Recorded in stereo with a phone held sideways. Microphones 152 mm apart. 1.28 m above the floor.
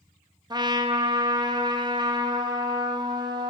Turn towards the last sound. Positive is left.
turn(degrees=-25)  # may be behind; listen again after turning